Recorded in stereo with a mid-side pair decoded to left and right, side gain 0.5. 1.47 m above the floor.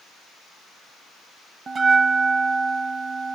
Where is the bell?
40° right, 0.8 m.